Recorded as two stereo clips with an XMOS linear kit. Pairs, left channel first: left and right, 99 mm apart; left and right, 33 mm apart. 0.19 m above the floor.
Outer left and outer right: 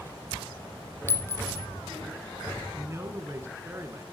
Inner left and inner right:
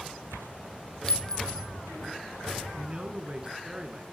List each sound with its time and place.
1.1 s a clink: 25° left (ahead or behind), 0.9 m
2.7 s a man speaking: 30° right (ahead or behind), 2 m